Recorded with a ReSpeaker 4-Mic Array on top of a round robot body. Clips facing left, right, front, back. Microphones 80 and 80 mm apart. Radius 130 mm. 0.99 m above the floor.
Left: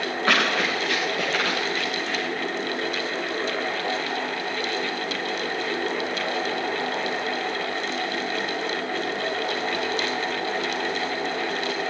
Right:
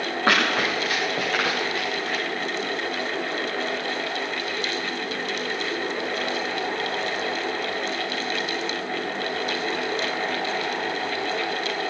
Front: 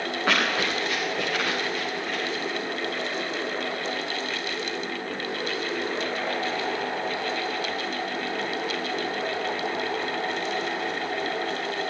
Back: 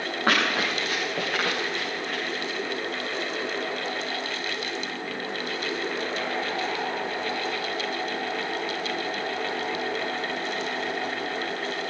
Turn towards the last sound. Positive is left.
turn(degrees=-140)